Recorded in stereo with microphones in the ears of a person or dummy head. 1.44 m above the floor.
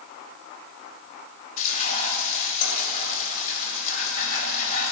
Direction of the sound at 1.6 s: 50° left (ahead or behind).